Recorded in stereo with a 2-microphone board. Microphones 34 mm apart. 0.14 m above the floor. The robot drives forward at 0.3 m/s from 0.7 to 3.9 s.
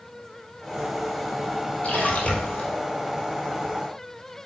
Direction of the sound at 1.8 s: 40° left (ahead or behind).